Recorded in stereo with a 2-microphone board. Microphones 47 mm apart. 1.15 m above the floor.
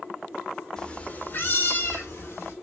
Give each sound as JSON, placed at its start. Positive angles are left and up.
{"t": 0.8, "sound": "a cat meowing", "side_deg": 15, "distance_m": 0.5}